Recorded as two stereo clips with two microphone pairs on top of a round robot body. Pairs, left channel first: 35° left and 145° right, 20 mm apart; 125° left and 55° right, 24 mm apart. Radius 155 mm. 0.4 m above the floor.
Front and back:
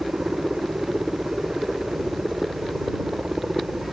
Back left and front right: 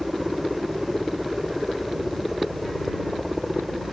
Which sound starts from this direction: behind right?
A helicopter, at 0.0 s.